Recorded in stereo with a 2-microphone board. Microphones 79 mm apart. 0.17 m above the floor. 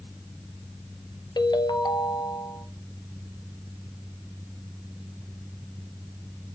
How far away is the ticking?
No ticking in this recording.